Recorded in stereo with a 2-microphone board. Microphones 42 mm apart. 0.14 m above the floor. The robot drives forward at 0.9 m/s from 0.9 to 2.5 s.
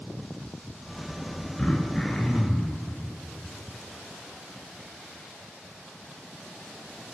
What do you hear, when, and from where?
1.6 s throat clearing: 20° left (ahead or behind), 0.5 m; by 2.8 s 10° left (ahead or behind), 1.2 m